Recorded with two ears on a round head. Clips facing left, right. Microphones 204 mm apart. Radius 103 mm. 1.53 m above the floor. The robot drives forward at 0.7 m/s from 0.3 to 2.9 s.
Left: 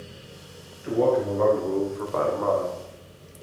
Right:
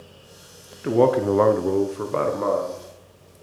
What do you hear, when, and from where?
0.8 s a man speaking: 60° right (ahead or behind), 0.6 m; by 2.8 s 25° right (ahead or behind), 1.2 m